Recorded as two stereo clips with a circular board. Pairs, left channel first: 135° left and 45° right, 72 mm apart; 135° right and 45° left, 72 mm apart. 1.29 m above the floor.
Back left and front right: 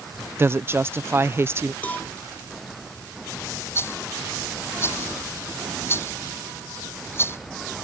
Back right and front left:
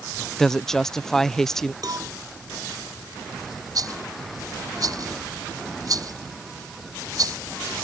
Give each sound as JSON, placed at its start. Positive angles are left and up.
{"t": 0.4, "sound": "a woman speaking", "azimuth_deg": -55}
{"t": 1.8, "sound": "a cowbell", "azimuth_deg": 70}
{"t": 3.8, "sound": "a rattle", "azimuth_deg": 80}